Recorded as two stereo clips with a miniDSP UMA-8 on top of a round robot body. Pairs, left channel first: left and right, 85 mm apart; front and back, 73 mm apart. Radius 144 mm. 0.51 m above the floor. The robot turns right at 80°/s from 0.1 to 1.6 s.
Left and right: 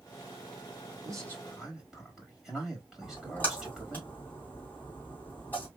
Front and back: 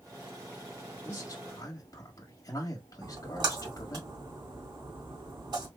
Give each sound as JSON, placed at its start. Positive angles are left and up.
{"t": 1.1, "sound": "a man speaking", "azimuth_deg": -50, "distance_m": 1.7}
{"t": 3.0, "sound": "a splash", "azimuth_deg": 160, "distance_m": 2.5}